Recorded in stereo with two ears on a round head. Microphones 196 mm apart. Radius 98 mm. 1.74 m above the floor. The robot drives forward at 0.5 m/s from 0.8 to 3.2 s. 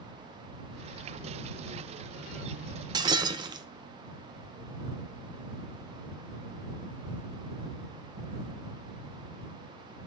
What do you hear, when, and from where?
2.9 s breaking glass: 20° right (ahead or behind), 0.8 m